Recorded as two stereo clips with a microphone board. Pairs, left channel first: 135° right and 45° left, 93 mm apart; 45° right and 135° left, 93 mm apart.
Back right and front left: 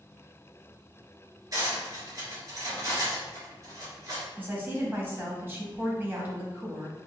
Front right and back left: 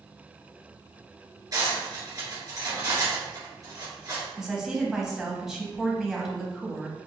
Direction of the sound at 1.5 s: 95° left.